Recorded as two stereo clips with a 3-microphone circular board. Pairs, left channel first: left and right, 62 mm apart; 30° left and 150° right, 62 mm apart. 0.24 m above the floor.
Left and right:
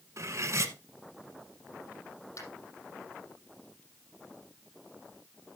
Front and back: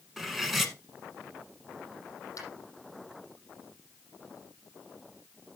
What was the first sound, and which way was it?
Cutlery clinking, 65° right.